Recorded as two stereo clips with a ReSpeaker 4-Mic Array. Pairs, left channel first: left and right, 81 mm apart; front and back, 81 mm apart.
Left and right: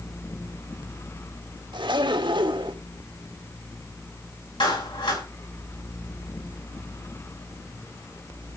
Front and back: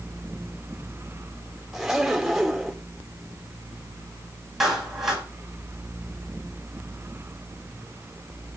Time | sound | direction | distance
1.7 | a zipper | 95° right | 2.0 m
4.6 | a clap | 95° left | 7.5 m